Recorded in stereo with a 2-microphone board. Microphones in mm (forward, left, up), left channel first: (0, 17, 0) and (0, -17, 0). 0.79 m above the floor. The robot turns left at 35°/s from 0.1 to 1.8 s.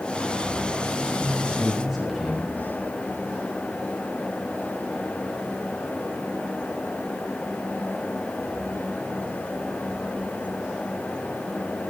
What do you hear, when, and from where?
1.0 s a man speaking: 35° right (ahead or behind), 5.5 m; by 2.5 s 5° right (ahead or behind), 5.5 m